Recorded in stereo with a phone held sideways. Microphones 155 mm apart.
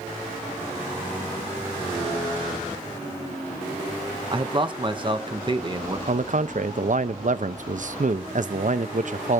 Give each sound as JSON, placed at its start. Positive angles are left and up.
{"t": 4.3, "sound": "a man speaking", "side_deg": -35, "distance_m": 0.9}
{"t": 6.1, "sound": "a man speaking", "side_deg": -60, "distance_m": 0.6}